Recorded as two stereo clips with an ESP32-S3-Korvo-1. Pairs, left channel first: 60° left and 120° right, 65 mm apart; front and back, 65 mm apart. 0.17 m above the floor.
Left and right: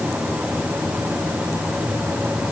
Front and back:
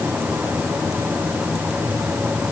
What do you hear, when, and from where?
Only background noise.